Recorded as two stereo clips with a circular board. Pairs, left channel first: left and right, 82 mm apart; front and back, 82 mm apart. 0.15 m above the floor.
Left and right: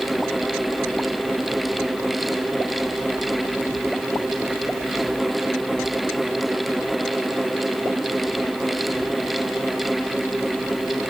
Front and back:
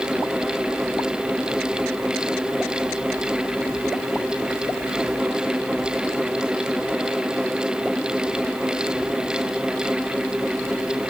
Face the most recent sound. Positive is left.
No sound to turn to.